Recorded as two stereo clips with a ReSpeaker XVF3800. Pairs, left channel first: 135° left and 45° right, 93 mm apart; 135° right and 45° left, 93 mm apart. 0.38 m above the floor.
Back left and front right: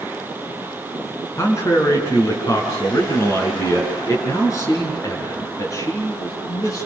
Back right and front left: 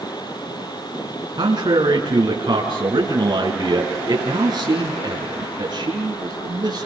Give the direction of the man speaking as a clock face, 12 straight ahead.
9 o'clock.